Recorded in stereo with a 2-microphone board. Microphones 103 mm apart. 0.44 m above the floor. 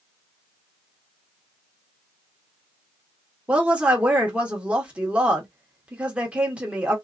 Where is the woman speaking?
10° right (ahead or behind), 0.9 m.